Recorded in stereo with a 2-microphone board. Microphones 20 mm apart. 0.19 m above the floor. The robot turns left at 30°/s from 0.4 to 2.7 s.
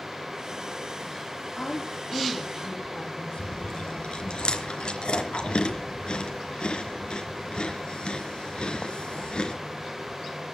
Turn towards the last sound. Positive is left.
turn(degrees=60)  # may be behind; listen again after turning